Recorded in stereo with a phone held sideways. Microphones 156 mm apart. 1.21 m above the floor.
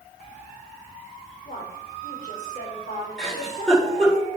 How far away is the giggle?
About 4.5 m.